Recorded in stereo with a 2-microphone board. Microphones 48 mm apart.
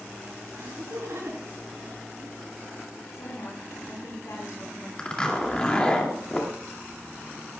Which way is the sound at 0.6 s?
70° right (ahead or behind).